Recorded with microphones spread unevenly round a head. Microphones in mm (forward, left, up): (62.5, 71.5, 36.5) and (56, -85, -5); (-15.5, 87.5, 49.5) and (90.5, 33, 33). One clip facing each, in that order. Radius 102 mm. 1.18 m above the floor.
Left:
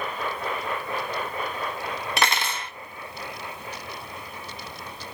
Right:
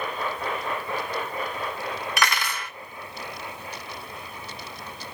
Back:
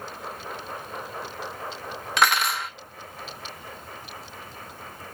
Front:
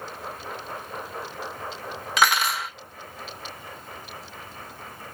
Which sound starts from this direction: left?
Cutlery clinking, at 2.2 s.